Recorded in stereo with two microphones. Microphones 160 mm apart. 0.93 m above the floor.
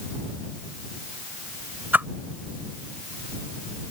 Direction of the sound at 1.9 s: 15° right (ahead or behind).